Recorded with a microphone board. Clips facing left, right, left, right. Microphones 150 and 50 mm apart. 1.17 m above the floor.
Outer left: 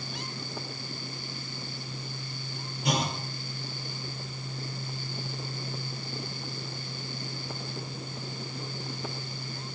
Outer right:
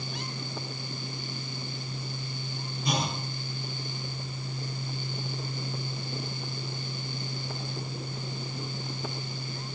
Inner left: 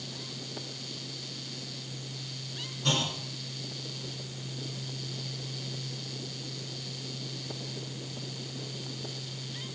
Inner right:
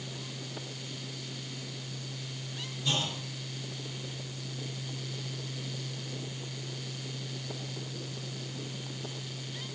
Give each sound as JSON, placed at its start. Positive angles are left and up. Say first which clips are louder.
{"t": 2.8, "sound": "a clunk", "louder": "outer left 1 dB, inner left 2 dB", "side_deg": 80, "distance_m": 7.0}